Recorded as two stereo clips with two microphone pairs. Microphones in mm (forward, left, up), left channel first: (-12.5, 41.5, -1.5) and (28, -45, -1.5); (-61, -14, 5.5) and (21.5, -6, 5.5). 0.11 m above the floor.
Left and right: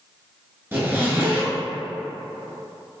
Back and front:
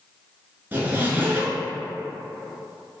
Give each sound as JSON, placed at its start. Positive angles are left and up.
{"t": 0.7, "sound": "a zipper", "azimuth_deg": -30, "distance_m": 0.7}